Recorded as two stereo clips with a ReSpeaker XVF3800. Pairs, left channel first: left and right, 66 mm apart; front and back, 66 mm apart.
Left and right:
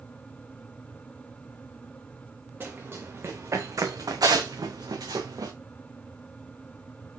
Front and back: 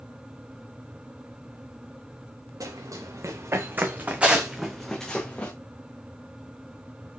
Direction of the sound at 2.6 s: 145° right.